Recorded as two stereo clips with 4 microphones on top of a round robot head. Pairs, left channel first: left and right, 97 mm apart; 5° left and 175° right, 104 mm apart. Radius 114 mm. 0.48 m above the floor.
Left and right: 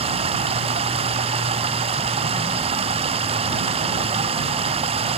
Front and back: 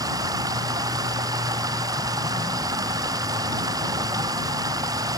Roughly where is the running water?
Behind right.